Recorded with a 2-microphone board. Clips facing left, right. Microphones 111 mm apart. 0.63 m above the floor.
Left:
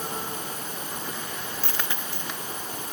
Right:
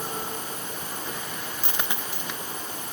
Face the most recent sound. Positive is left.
turn(degrees=-20)  # may be behind; listen again after turning